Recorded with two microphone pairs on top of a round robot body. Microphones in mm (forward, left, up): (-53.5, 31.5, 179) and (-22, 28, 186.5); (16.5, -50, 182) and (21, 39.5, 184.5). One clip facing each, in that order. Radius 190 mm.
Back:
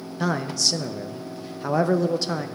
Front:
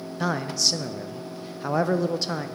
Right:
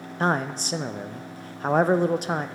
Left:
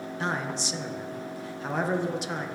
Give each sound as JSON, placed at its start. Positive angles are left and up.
{"t": 0.2, "sound": "a man speaking", "azimuth_deg": -105, "distance_m": 0.5}